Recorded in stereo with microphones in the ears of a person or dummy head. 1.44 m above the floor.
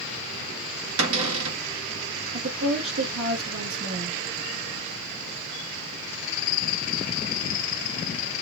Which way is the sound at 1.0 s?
80° right.